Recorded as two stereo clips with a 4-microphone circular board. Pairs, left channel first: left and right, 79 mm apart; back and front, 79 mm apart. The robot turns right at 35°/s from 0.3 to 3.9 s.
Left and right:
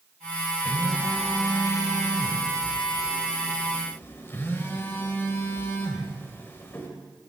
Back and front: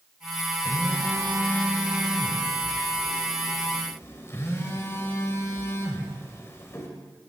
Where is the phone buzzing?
20° left, 1.9 m; by 6.9 s 135° left, 1.9 m.